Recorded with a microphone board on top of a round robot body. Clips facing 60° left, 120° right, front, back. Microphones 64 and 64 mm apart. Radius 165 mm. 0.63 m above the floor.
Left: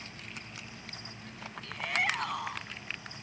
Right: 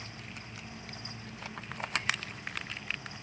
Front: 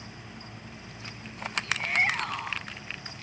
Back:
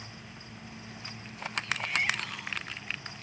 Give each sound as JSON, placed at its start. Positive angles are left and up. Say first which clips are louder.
{"t": 1.6, "sound": "a shout", "louder": "left 3 dB, front 4 dB", "azimuth_deg": 45}